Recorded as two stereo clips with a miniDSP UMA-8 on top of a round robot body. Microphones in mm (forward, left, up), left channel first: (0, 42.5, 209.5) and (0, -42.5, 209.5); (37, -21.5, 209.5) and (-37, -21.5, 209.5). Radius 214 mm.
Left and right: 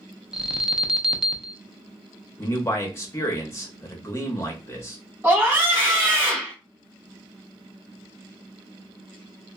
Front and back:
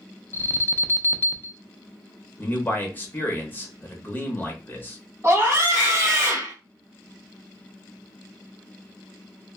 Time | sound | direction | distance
0.3 | an alarm | 15° right | 0.7 m
2.4 | a man speaking | 50° left | 1.0 m
5.2 | a scream | 150° right | 1.7 m